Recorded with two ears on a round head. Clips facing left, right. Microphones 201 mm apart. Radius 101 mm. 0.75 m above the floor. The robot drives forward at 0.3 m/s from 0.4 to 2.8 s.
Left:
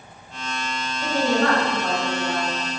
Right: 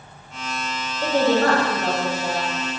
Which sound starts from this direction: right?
A woman speaking, at 1.0 s.